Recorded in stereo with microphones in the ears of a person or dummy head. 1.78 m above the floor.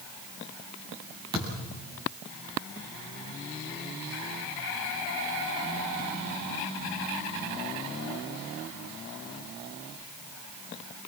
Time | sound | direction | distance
1.3 | a thud | 25° right (ahead or behind) | 7 m